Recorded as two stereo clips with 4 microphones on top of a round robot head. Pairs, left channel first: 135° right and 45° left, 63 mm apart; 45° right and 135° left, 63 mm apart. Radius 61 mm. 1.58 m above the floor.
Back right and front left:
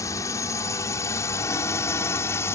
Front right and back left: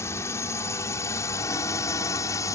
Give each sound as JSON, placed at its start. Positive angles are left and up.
{"t": 0.0, "sound": "a drone", "azimuth_deg": -95}